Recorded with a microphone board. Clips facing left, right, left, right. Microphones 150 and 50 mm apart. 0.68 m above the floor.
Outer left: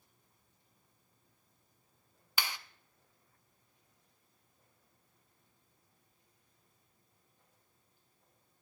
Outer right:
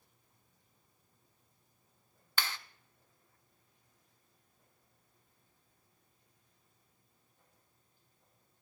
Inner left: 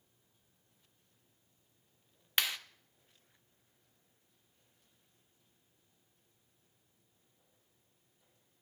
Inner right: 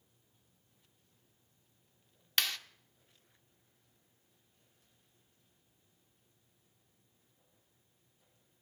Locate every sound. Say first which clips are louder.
2.4 s a clap: even, even; 15° left (ahead or behind), 0.7 m